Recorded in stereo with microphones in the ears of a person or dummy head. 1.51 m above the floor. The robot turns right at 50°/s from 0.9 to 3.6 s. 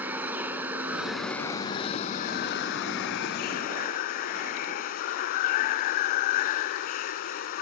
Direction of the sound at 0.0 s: 15° right.